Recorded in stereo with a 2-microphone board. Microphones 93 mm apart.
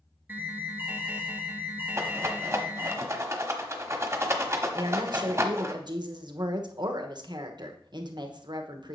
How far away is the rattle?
About 1.1 m.